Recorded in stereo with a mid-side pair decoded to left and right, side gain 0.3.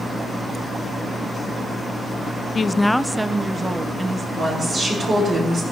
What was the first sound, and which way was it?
A woman speaking, 55° left.